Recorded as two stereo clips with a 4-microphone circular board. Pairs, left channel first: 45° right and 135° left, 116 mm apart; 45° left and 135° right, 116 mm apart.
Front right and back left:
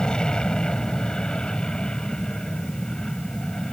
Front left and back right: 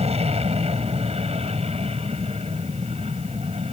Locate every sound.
0.0 s an aircraft: 130° right